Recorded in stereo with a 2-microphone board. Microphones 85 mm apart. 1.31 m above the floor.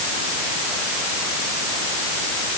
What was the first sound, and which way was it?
Only background noise.